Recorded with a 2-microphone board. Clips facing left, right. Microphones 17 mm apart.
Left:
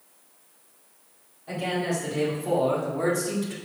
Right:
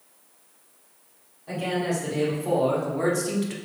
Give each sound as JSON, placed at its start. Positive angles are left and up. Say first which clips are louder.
{"t": 1.5, "sound": "a man speaking", "louder": "right 1 dB", "side_deg": -5, "distance_m": 3.5}